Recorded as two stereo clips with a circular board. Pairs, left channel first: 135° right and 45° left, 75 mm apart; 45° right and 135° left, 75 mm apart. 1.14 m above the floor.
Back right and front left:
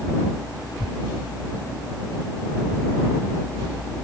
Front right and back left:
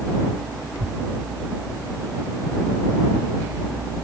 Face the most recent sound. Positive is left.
turn(degrees=90)